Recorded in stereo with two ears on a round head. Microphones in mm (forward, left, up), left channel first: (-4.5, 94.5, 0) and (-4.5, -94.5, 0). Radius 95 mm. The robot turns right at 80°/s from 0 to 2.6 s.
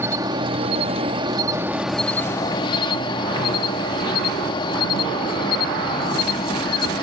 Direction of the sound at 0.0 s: 10° right (ahead or behind).